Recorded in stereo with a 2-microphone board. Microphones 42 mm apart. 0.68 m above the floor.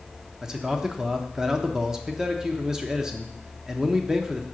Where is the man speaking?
15° right (ahead or behind), 0.9 m.